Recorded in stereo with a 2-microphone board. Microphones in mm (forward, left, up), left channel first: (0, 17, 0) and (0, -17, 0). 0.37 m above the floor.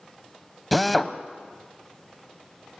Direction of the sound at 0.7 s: Centre (ahead or behind).